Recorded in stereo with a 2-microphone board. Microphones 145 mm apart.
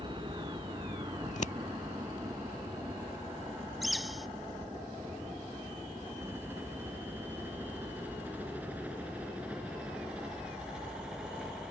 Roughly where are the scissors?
Left.